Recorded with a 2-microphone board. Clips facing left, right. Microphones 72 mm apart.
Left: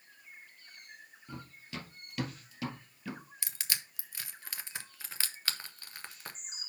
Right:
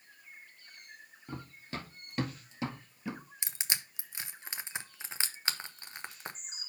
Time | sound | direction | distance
1.3 | running footsteps | 45° right (ahead or behind) | 1.8 m
3.4 | crushing | 20° right (ahead or behind) | 0.8 m